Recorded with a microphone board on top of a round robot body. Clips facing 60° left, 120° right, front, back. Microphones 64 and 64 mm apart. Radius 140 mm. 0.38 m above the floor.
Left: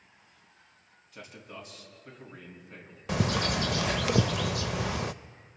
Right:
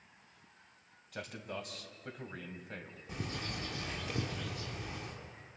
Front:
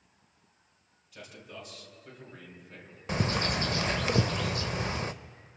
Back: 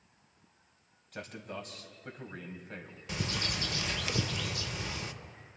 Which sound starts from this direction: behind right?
A man speaking, at 1.1 s.